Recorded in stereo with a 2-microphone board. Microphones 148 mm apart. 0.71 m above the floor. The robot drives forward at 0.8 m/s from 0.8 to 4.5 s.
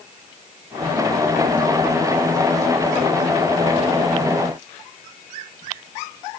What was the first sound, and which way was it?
Only background noise.